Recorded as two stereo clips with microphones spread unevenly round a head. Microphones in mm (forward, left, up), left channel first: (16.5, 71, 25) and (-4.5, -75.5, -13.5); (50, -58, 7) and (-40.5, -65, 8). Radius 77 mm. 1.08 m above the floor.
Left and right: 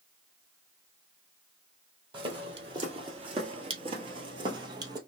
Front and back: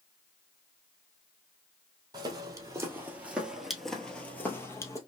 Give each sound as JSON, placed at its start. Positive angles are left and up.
{"t": 2.1, "sound": "footsteps", "azimuth_deg": -165, "distance_m": 1.4}